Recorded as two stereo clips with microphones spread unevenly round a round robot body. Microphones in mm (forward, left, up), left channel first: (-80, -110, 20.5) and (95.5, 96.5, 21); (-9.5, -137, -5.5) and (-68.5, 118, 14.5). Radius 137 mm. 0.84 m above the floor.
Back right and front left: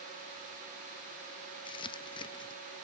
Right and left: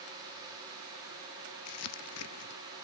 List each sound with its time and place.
1.6 s crumpling: 60° right, 0.6 m